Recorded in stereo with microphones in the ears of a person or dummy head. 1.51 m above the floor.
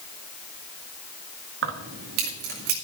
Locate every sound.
1.6 s keys jangling: 75° right (ahead or behind), 1.7 m; by 2.8 s 55° right (ahead or behind), 3 m